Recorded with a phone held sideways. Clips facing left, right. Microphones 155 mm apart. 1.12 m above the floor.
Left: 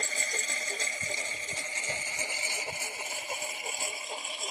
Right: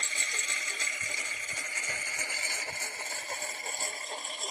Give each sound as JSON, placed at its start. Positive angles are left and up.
{"t": 0.0, "sound": "a lawn mower", "side_deg": 40}